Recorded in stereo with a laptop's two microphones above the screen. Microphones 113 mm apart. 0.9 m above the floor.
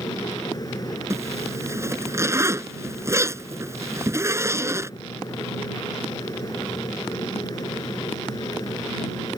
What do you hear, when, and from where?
0.0 s a fan: 35° left (ahead or behind)
1.1 s a zipper: 25° right (ahead or behind)